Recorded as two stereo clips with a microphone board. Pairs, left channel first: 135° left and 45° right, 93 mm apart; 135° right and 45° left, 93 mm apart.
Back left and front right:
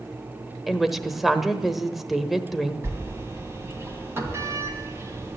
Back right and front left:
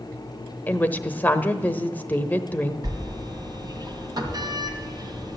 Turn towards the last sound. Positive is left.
turn(degrees=10)